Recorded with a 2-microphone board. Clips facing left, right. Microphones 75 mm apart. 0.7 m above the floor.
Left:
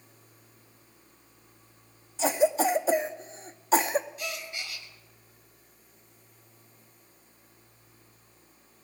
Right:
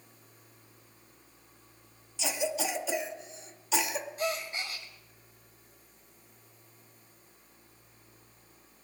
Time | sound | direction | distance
2.2 | a cough | 40° left (ahead or behind) | 0.8 m
4.2 | a gasp | 35° right (ahead or behind) | 1.3 m